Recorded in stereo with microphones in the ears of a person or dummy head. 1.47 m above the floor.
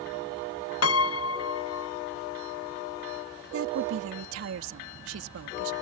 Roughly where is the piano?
Left.